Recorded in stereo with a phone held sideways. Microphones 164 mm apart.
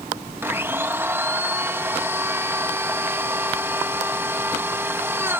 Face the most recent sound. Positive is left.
turn(degrees=-10)  # may be behind; listen again after turning